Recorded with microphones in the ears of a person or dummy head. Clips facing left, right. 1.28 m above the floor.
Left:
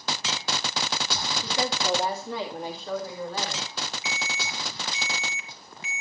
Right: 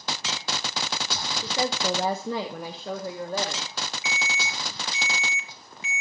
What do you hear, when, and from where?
1.4 s a woman speaking: 20° right (ahead or behind), 0.9 m; by 3.7 s 35° right (ahead or behind), 2 m
4.0 s an alarm: 65° right (ahead or behind), 2.5 m